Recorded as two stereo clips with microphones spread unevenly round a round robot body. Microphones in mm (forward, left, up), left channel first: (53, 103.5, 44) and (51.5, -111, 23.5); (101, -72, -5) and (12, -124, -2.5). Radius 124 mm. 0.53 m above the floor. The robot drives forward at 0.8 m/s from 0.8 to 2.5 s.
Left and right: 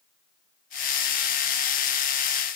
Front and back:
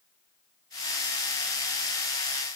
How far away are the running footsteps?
No running footsteps in this recording.